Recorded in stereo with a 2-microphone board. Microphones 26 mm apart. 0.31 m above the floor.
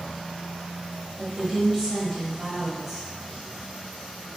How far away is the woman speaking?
About 1.7 m.